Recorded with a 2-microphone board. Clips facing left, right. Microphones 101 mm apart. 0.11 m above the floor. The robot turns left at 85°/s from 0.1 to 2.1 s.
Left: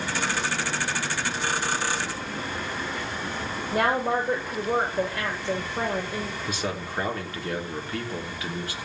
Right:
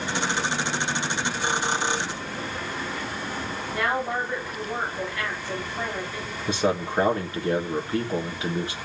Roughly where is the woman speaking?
Left.